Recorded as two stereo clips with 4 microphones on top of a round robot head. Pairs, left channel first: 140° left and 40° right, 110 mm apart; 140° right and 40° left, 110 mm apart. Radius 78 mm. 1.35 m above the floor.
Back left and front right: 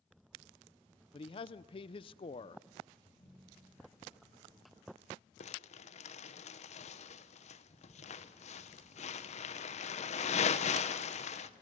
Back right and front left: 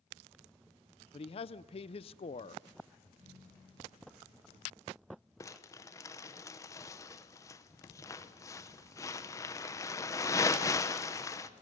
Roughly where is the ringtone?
Left.